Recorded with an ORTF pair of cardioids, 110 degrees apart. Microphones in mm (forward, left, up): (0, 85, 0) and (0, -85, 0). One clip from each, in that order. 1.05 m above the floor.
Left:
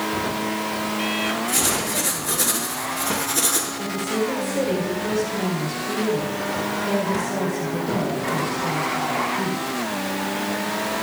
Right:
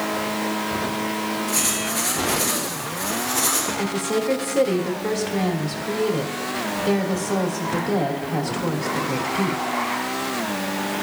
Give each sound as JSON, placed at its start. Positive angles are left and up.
{"t": 1.5, "sound": "writing", "azimuth_deg": 30, "distance_m": 5.0}
{"t": 3.8, "sound": "a woman speaking", "azimuth_deg": -55, "distance_m": 3.0}